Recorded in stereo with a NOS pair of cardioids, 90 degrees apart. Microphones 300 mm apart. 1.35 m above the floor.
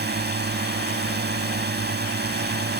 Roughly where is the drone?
Ahead right.